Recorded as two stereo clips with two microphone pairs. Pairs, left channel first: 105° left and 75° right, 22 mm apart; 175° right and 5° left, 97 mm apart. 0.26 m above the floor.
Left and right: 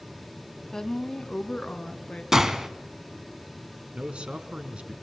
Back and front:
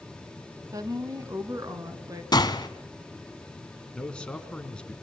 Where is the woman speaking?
45° left, 1.7 m; by 2.2 s 60° left, 3.5 m.